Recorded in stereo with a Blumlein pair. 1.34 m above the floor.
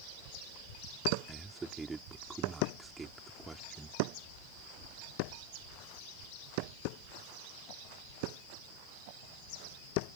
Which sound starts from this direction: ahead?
A man speaking, at 1.3 s.